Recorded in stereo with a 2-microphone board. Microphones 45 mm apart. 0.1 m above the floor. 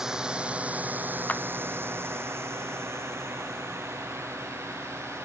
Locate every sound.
0.0 s a drone: 10° right (ahead or behind); by 5.2 s 85° right
1.3 s a clap: 35° left (ahead or behind)